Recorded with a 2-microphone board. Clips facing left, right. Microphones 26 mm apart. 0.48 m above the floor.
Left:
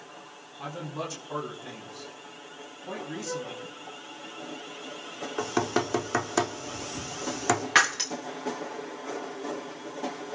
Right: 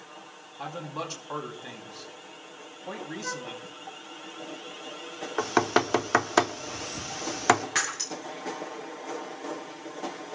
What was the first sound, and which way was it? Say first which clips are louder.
A man speaking: even; 30° right (ahead or behind).